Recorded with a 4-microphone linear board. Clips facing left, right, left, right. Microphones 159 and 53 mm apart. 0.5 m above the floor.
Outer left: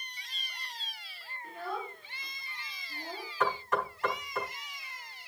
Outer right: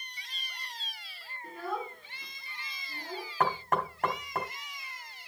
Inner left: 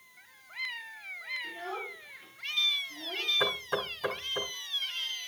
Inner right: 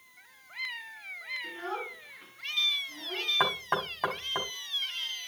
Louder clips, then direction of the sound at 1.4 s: Outer right 2 dB, inner right 2 dB; 40° right (ahead or behind).